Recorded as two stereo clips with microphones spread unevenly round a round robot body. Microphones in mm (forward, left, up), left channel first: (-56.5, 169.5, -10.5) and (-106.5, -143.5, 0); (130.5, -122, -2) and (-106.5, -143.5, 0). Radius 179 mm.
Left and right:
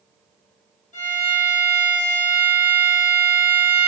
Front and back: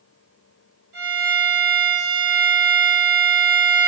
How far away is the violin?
About 1.9 m.